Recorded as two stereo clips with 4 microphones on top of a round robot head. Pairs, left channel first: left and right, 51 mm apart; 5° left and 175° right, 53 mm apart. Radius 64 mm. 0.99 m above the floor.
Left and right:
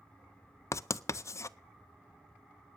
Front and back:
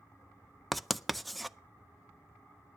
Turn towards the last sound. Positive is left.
turn(degrees=95)